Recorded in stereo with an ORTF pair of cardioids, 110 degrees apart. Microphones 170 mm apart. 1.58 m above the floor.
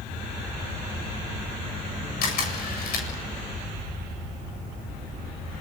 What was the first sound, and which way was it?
A camera shutter, 60° left.